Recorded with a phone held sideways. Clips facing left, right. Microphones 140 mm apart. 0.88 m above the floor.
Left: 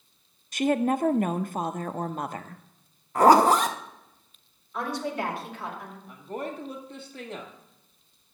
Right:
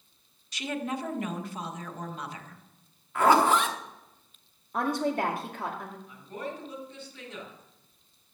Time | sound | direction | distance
0.5 | a woman speaking | 50° left (ahead or behind) | 0.6 m
3.1 | a zipper | 40° left (ahead or behind) | 0.7 m
4.7 | a woman speaking | 50° right (ahead or behind) | 2 m
6.1 | a woman speaking | 50° left (ahead or behind) | 1.6 m